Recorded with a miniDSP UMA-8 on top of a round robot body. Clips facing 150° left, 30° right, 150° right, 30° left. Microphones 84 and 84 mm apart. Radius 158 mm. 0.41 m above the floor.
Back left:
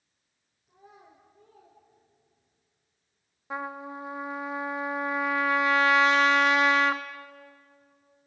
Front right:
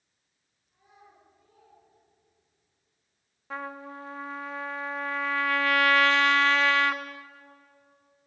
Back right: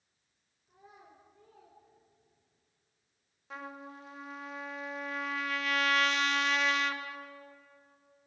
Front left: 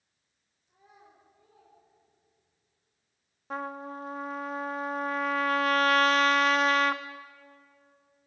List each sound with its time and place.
0.7 s a child speaking: 175° left, 5 m; by 2.6 s 175° right, 6 m
3.5 s a trumpet: 75° left, 1.5 m